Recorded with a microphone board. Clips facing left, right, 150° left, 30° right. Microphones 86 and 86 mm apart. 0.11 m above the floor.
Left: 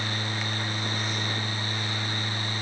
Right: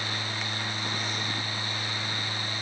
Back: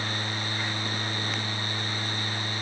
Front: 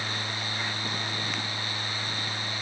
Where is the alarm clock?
No alarm clock in this recording.